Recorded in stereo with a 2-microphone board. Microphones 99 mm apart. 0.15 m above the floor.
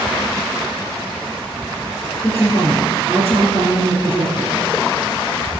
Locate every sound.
2.2 s a woman speaking: 25° left (ahead or behind), 2.5 m